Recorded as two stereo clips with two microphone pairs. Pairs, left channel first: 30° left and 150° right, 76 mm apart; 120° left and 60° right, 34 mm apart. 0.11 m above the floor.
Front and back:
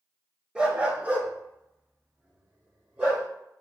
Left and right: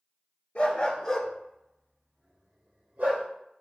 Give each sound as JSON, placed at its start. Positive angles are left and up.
{"t": 0.6, "sound": "a dog barking", "azimuth_deg": 135, "distance_m": 0.8}